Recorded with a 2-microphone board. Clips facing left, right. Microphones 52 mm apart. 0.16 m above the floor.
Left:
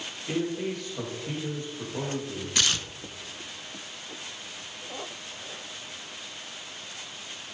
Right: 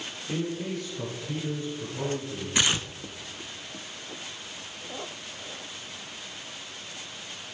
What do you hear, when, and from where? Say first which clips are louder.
0.3 s a man speaking: left 2 dB; 70° left (ahead or behind), 5.5 m
2.5 s tearing paper: right 2 dB; 20° right (ahead or behind), 0.5 m